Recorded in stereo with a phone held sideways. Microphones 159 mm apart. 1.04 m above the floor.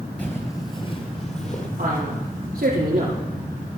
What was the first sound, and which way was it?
Footsteps, 10° left (ahead or behind).